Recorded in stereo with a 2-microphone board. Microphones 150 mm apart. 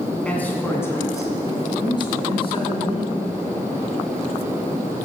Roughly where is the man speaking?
Centre.